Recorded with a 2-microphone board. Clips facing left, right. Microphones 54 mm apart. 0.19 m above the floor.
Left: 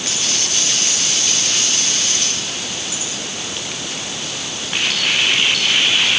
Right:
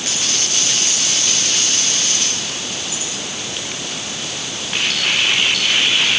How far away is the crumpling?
No crumpling in this recording.